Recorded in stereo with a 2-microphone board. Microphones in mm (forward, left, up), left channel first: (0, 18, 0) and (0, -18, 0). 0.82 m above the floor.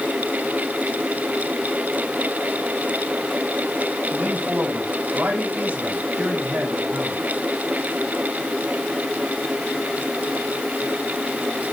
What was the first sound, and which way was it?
A man speaking, 75° right (ahead or behind).